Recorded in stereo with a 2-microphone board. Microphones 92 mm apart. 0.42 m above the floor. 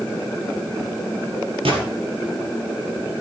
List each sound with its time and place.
1.6 s a gunshot: 90° right, 3.5 m